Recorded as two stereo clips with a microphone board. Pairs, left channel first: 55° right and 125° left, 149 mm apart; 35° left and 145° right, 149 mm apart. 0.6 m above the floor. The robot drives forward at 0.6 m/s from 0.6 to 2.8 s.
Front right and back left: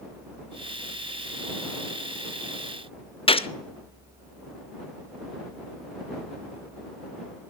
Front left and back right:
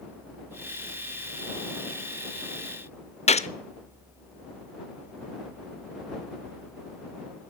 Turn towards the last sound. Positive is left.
turn(degrees=-5)